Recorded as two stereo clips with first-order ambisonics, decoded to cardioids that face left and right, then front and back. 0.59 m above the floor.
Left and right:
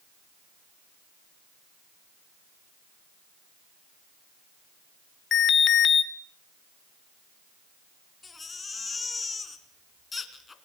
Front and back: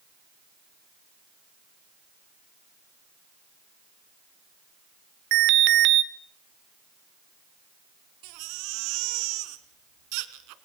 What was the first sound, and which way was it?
An alarm, 145° left.